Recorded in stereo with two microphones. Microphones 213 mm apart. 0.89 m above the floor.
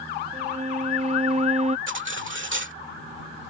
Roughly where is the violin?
Right.